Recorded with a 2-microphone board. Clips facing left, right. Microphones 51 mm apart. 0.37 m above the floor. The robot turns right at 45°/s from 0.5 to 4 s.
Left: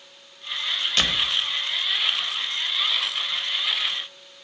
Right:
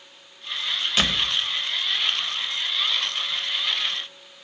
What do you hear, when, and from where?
1.0 s a door slam: 5° right (ahead or behind), 1.1 m; by 1.3 s 5° left (ahead or behind), 1.1 m